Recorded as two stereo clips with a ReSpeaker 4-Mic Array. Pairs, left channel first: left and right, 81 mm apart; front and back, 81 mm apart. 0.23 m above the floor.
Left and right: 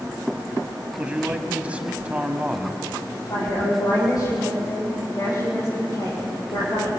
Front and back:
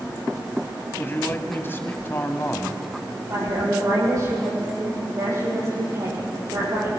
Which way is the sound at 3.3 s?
130° left.